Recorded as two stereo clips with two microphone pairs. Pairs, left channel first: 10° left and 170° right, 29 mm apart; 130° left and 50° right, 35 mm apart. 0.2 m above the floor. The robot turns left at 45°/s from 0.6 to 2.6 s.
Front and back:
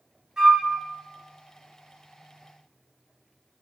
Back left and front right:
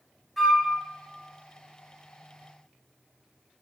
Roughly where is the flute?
Behind right.